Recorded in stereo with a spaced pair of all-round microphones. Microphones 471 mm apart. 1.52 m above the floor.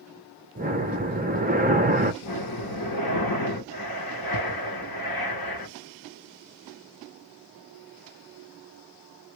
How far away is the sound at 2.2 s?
About 1.0 m.